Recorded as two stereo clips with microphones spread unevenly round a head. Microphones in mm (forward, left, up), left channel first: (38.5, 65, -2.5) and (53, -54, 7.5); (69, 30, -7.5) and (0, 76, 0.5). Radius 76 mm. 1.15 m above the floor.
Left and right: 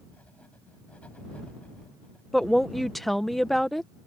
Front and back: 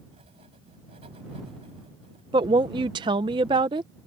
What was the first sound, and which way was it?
Writing, straight behind.